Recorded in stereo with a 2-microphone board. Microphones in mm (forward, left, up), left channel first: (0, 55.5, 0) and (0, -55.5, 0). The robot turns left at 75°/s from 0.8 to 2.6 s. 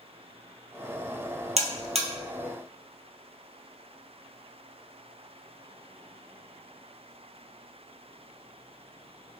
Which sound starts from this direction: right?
A buzzer, at 1.6 s.